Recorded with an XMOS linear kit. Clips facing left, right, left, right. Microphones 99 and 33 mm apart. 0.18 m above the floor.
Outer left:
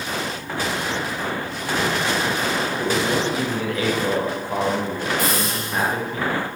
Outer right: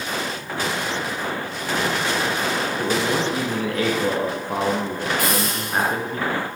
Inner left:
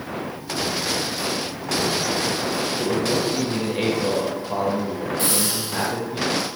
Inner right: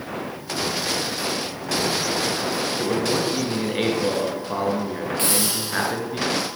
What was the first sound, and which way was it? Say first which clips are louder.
A man speaking: even, even; 50° right (ahead or behind).